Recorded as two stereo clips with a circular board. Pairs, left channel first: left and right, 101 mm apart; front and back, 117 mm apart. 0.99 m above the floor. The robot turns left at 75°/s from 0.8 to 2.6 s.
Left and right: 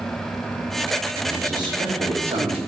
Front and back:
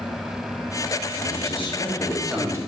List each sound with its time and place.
1.2 s a man speaking: 10° right, 1.4 m; by 2.6 s 120° right, 1.4 m